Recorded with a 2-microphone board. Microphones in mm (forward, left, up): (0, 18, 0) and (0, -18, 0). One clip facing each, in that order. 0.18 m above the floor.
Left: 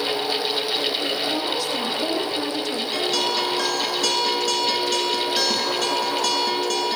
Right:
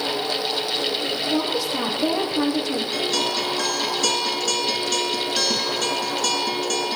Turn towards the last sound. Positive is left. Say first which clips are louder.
# left 3 dB
turn(degrees=10)  # may be behind; listen again after turning